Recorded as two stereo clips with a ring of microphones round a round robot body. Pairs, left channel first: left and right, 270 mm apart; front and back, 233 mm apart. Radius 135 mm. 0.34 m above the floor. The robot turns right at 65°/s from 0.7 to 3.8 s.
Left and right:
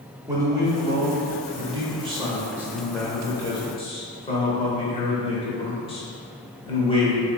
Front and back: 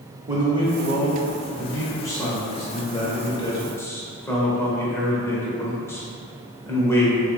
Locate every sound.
0.3 s a man speaking: 140° right, 0.9 m; by 7.3 s 60° left, 0.9 m